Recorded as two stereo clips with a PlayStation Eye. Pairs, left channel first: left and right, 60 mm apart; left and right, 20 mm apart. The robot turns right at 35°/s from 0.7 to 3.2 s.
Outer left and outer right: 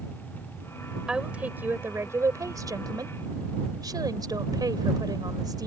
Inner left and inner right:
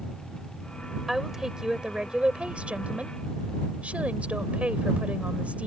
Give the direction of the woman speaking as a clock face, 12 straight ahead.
6 o'clock.